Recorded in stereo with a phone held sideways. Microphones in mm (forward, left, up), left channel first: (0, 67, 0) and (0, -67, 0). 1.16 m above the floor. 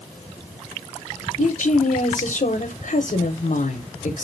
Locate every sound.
1.4 s a woman speaking: 70° left (ahead or behind), 0.6 m